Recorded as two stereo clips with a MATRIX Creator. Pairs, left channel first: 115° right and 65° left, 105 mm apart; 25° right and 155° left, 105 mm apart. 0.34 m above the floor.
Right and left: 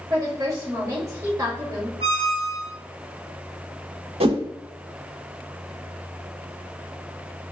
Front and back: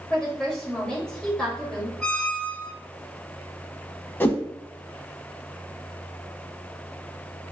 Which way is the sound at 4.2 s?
45° left.